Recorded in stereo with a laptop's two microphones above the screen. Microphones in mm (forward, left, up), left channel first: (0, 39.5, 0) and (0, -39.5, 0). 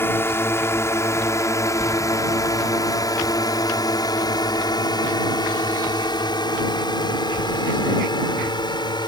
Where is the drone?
30° left (ahead or behind); by 9.1 s 65° left (ahead or behind).